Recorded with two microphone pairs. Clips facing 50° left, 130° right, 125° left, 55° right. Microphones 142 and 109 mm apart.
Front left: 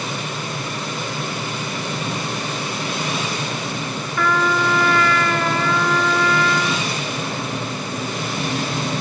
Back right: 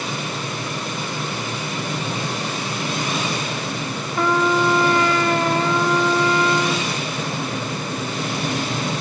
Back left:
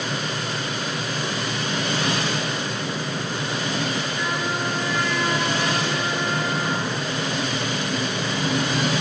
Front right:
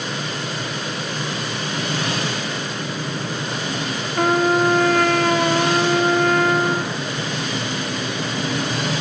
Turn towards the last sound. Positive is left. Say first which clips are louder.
# back right 2 dB, front right 9 dB
turn(degrees=-70)